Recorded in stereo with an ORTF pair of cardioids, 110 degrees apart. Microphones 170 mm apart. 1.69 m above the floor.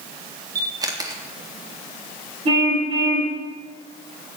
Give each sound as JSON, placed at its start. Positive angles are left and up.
{"t": 0.6, "sound": "a camera shutter", "azimuth_deg": -20, "distance_m": 3.5}
{"t": 2.5, "sound": "a car horn", "azimuth_deg": -35, "distance_m": 6.5}